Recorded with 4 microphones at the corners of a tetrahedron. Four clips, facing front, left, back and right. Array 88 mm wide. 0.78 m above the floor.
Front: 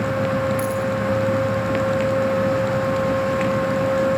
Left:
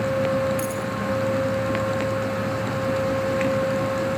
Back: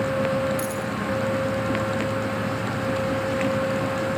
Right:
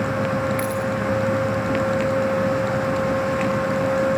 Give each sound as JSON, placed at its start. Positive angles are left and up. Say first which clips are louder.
{"t": 0.6, "sound": "a dropped coin", "louder": "right 3 dB, front 5 dB", "azimuth_deg": -90, "distance_m": 5.0}